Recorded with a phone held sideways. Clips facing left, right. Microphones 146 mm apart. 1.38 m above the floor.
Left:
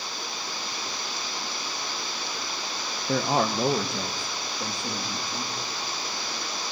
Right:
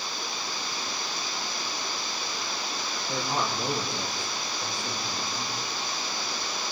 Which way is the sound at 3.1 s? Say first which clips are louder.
Left 6 dB; 75° left (ahead or behind).